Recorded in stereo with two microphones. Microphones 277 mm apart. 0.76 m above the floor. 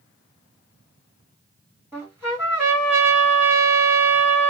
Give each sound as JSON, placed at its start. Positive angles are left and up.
{"t": 1.9, "sound": "a trumpet", "side_deg": -10, "distance_m": 1.7}